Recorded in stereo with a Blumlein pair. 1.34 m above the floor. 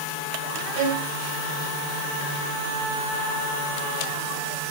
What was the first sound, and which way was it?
A violin, 55° right.